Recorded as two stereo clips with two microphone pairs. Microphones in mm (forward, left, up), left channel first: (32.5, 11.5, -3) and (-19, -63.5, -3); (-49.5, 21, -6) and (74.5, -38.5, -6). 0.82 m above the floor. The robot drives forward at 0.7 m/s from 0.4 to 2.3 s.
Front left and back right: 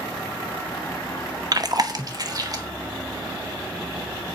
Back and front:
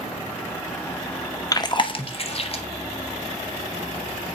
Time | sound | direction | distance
1.5 | chewing | 150° right | 0.6 m